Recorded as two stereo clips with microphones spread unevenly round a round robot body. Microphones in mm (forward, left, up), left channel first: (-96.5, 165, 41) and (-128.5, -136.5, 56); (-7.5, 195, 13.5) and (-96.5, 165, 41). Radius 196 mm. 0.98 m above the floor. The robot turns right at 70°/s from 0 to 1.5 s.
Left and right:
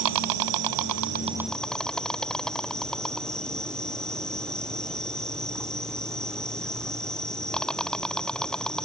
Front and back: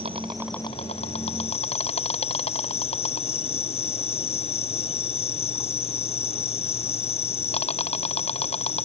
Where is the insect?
110° right; by 8.8 s 5° right.